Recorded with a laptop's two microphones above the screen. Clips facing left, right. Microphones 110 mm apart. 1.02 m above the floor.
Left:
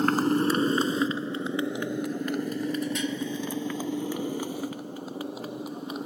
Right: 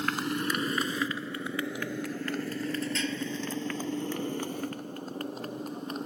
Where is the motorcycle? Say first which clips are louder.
Left 8 dB; 40° left (ahead or behind); by 6.1 s 5° left (ahead or behind).